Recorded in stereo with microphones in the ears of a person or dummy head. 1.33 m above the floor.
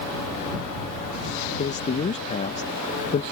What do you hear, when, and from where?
1.6 s a man speaking: 30° left (ahead or behind)